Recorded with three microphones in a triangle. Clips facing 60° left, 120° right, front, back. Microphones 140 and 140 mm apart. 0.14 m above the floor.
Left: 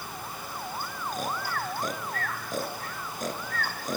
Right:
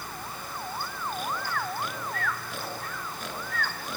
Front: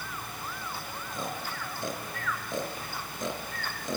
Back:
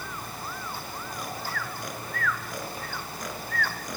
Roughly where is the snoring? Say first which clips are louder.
Left 1 dB, even; ahead left.